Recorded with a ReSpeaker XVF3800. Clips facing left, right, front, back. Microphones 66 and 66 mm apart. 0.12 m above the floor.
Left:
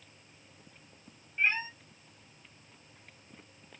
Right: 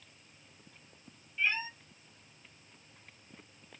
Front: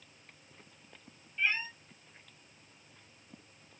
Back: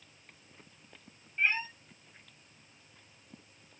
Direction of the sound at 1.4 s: 135° left.